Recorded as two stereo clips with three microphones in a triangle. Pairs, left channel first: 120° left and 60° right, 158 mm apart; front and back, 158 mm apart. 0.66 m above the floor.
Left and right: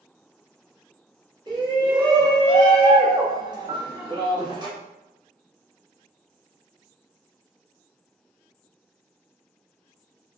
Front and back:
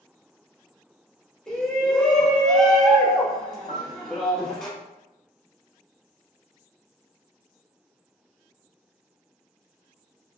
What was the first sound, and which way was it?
A shout, 85° right.